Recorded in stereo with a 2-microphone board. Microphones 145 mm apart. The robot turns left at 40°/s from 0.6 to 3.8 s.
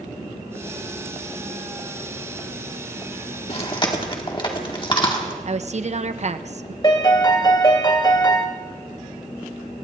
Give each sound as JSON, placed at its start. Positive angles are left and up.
{"t": 3.5, "sound": "chewing", "side_deg": 45, "distance_m": 1.8}
{"t": 5.5, "sound": "a woman speaking", "side_deg": -50, "distance_m": 0.7}
{"t": 6.8, "sound": "a piano", "side_deg": 30, "distance_m": 1.3}